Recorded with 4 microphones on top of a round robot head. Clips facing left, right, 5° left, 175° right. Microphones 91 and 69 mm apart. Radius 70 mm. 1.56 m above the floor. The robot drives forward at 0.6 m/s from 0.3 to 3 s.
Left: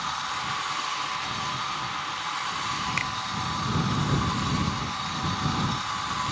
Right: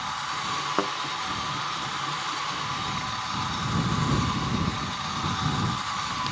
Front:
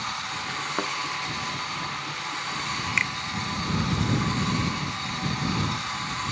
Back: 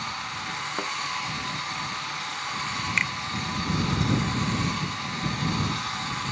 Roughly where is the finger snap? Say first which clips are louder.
Left 1 dB, even; left.